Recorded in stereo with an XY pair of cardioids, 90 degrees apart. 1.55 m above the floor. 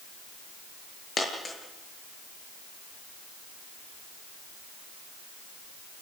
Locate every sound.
1.2 s a dropped coin: 35° left, 7 m